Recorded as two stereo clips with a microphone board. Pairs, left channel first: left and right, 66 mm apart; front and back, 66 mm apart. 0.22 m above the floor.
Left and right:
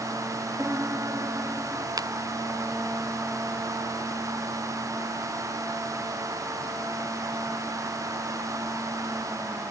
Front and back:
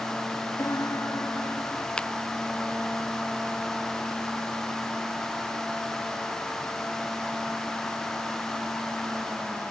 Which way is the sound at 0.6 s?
40° right.